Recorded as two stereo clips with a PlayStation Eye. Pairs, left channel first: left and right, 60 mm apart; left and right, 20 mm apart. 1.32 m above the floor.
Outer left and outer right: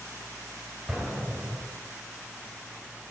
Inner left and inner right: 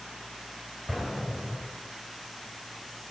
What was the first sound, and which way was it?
An explosion, 10° right (ahead or behind).